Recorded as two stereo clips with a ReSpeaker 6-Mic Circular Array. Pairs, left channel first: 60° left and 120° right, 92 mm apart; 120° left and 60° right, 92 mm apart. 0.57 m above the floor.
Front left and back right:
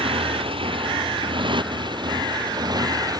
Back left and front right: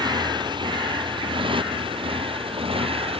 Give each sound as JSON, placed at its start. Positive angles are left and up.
{"t": 0.0, "sound": "a motorcycle", "azimuth_deg": -100}